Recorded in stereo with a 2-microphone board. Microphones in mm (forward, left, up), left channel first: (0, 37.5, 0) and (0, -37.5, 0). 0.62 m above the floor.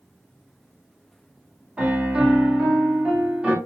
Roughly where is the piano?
Centre.